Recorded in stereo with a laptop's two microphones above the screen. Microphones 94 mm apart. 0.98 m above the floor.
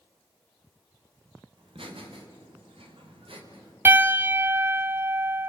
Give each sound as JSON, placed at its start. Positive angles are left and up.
{"t": 1.6, "sound": "laughter", "side_deg": -80, "distance_m": 4.0}
{"t": 3.9, "sound": "a piano", "side_deg": -25, "distance_m": 1.0}